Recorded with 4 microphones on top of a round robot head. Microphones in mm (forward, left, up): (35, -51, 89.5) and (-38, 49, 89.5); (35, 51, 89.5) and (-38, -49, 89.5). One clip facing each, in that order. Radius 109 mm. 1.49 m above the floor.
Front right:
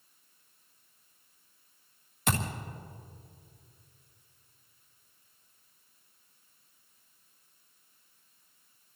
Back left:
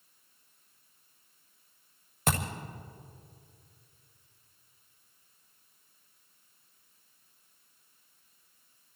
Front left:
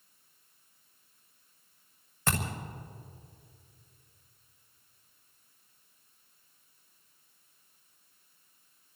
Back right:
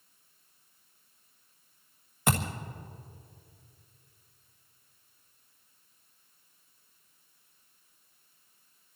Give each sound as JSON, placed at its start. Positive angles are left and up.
{"t": 2.3, "sound": "a thud", "azimuth_deg": 160, "distance_m": 1.4}